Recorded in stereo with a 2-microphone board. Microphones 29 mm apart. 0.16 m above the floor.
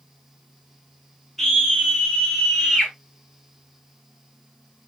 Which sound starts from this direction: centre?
A scream, at 1.4 s.